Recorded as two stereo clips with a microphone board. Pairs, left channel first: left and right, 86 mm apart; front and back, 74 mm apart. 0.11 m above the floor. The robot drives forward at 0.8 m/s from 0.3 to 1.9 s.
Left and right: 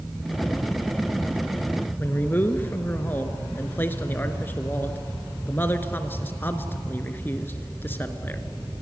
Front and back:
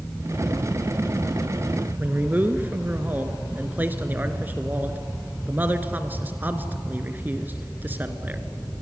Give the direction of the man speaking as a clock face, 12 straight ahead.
7 o'clock.